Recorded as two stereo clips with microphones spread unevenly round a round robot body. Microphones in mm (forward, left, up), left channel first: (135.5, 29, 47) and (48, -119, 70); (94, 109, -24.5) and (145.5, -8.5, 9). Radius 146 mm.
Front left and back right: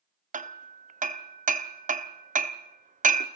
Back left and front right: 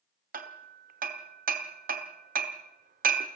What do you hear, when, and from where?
0.3 s hammering: 80° right, 1.2 m